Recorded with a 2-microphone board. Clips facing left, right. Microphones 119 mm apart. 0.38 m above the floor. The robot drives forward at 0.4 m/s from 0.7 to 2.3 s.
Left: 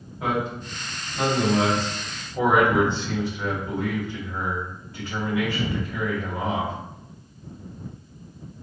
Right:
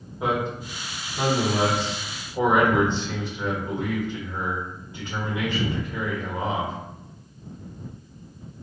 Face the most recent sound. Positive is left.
turn(degrees=-20)  # may be behind; listen again after turning